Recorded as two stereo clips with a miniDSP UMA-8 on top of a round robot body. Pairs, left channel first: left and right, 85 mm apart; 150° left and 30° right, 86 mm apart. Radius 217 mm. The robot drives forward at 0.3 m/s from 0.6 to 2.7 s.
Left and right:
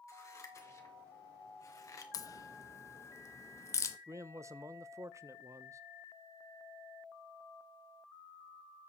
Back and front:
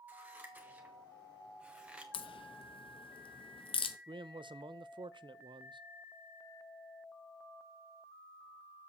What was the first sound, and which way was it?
Scissors, 40° left.